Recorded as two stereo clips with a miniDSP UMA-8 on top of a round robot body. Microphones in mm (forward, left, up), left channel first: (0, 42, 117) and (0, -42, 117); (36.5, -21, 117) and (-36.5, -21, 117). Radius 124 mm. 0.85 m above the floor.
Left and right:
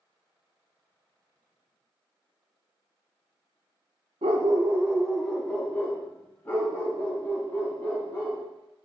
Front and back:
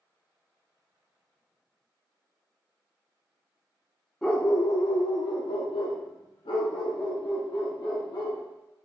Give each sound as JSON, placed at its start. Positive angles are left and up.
{"t": 4.2, "sound": "a dog barking", "azimuth_deg": -80, "distance_m": 0.5}